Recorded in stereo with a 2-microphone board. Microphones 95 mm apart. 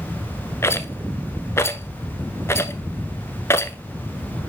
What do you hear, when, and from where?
0.6 s a rattle: 30° left (ahead or behind), 0.7 m